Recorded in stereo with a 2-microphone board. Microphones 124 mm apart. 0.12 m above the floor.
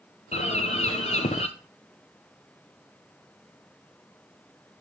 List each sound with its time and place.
0.3 s a bird: 65° left (ahead or behind), 0.9 m